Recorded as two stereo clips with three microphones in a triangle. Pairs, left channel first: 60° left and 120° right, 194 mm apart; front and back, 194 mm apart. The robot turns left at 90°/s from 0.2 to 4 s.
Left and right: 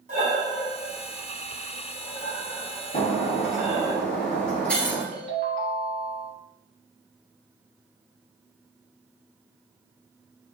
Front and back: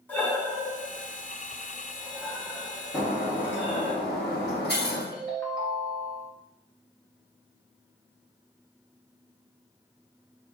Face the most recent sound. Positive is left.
turn(degrees=-75)